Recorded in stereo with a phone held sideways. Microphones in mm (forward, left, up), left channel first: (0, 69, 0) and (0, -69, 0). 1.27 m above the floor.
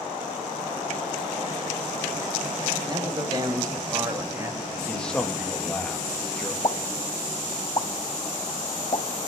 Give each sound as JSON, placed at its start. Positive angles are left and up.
{"t": 2.9, "sound": "a man speaking", "side_deg": -30, "distance_m": 8.0}
{"t": 4.9, "sound": "a man speaking", "side_deg": 5, "distance_m": 2.0}
{"t": 6.6, "sound": "a pop", "side_deg": 35, "distance_m": 2.5}